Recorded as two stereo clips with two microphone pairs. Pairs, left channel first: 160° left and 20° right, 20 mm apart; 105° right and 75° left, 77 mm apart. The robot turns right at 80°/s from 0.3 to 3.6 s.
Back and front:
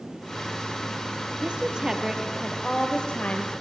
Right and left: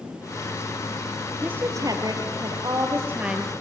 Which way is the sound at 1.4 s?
5° left.